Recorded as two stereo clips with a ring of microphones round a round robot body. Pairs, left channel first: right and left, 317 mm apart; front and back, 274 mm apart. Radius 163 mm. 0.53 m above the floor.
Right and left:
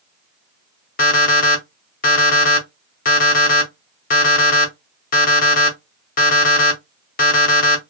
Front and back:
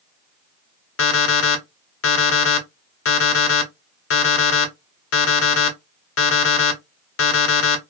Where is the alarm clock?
30° right, 0.8 m.